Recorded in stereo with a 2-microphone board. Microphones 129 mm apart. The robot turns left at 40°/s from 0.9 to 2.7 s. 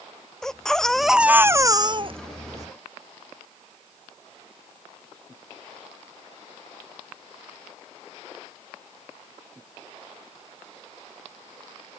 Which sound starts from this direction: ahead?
A baby crying, at 0.4 s.